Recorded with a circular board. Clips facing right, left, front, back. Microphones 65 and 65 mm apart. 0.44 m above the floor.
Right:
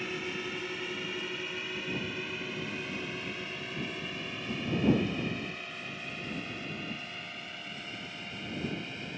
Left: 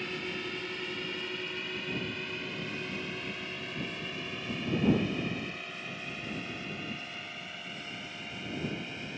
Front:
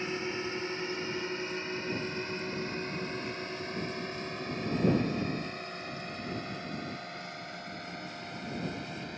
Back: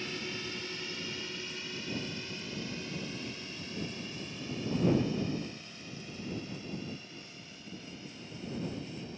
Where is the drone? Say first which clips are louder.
Right 1 dB, front 5 dB; 10° right; by 9.2 s straight ahead.